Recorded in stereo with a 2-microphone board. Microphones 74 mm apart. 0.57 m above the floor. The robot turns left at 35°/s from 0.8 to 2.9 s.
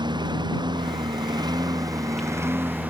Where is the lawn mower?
85° right; by 2.9 s 160° right.